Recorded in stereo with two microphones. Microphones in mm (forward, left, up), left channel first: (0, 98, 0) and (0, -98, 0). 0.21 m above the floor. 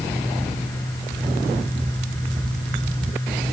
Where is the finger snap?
I don't hear a finger snap.